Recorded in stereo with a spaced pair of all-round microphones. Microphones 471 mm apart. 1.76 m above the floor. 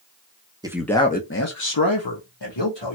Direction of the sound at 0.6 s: 10° right (ahead or behind).